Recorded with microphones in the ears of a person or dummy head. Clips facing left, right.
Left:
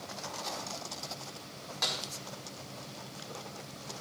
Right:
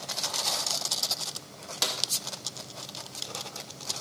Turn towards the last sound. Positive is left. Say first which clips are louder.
# right 3 dB
turn(degrees=-50)  # may be behind; listen again after turning